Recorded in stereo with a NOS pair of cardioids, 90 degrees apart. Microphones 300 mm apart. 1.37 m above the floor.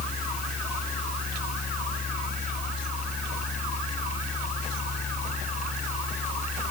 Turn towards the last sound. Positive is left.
turn(degrees=25)